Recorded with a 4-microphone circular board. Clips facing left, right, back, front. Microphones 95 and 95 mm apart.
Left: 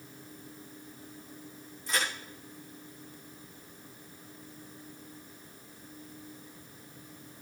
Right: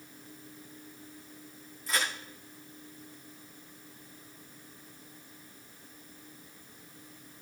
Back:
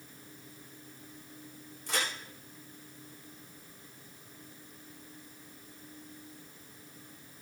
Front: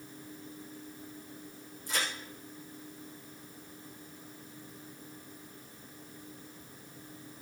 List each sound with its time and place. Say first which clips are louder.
1.9 s a crack: even, back 1 dB; straight behind, 9 m